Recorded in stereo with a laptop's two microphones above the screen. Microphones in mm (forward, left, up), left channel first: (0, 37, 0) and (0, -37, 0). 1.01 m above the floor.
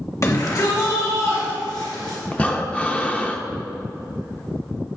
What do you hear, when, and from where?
0.2 s a shout: 45° left (ahead or behind), 1.7 m; by 2.2 s 75° left (ahead or behind), 4 m
2.3 s breathing: 20° left (ahead or behind), 0.5 m